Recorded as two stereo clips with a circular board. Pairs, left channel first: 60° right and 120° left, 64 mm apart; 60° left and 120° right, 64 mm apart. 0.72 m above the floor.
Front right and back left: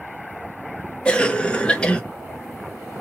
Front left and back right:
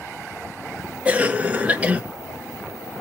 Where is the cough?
105° right, 0.7 m.